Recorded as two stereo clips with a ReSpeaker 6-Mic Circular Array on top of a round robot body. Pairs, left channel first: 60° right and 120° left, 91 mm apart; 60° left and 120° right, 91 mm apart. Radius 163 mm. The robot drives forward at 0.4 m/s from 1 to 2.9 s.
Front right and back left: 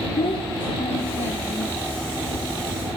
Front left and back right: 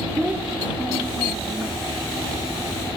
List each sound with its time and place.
0.2 s a child speaking: 45° right, 0.9 m; by 1.8 s 65° right, 0.8 m